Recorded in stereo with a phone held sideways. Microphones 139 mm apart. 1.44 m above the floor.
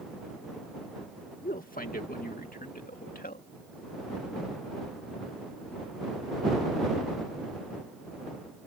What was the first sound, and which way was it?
A man speaking, 75° left (ahead or behind).